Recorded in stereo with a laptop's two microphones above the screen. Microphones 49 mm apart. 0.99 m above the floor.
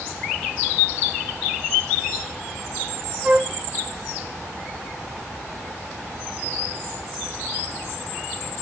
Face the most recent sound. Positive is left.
turn(degrees=-20)  # may be behind; listen again after turning